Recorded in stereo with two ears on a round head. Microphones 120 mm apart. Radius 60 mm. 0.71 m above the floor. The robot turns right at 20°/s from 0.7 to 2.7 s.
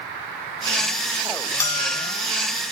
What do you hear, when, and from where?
1.6 s a bell: 15° left (ahead or behind), 1.8 m; by 2.1 s 25° left (ahead or behind), 1.8 m